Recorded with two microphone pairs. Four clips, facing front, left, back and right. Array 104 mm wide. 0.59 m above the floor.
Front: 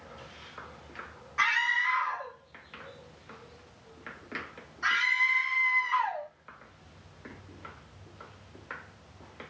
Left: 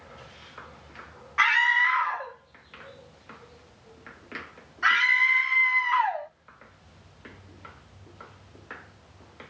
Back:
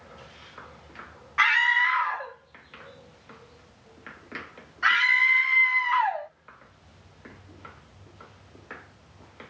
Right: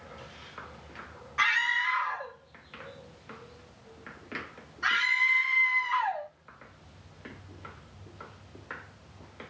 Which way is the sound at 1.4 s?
135° left.